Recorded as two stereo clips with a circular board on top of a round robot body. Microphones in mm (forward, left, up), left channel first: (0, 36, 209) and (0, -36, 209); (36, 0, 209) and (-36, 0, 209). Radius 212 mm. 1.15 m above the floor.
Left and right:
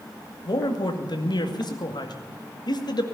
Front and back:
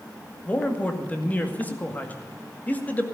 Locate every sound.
0.5 s a man speaking: 70° left, 2 m